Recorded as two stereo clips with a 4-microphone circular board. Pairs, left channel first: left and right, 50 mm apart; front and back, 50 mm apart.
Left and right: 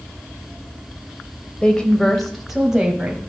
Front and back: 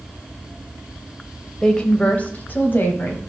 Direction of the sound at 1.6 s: 60° left.